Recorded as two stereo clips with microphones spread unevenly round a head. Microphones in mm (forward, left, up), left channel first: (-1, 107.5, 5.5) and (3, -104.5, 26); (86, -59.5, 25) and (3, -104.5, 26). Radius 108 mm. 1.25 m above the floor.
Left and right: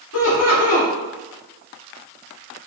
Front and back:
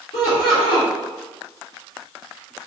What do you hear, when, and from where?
0.1 s laughter: 90° left, 1.7 m